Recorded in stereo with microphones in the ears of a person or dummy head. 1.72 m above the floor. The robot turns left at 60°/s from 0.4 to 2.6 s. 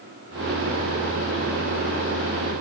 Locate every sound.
Only background noise.